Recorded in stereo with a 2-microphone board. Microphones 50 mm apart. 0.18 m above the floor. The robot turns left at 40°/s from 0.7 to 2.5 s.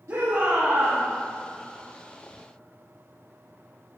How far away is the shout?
About 7.5 m.